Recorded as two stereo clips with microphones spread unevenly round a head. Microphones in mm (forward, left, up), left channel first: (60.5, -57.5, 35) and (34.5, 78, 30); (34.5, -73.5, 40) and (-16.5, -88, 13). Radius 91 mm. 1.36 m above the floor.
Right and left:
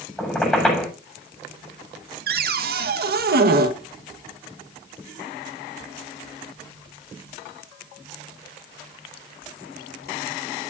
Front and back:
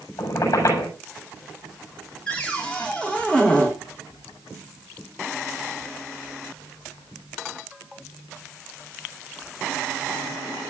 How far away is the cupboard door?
About 1.4 m.